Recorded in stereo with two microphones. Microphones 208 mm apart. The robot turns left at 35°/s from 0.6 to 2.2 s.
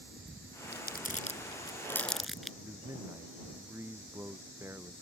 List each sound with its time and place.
0.7 s crumpling: 50° left (ahead or behind); by 2.5 s centre (ahead or behind)
2.6 s a man speaking: 10° right (ahead or behind)